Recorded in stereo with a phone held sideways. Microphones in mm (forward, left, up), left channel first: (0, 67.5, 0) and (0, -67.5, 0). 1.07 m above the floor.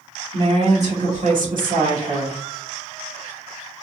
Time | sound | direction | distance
0.3 | a woman speaking | 50° right (ahead or behind) | 1.8 m